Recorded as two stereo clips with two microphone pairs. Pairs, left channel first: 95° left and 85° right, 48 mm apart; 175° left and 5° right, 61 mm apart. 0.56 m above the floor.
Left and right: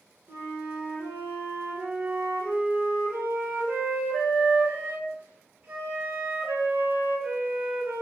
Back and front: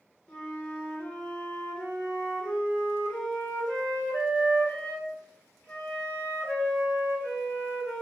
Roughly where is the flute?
Behind right.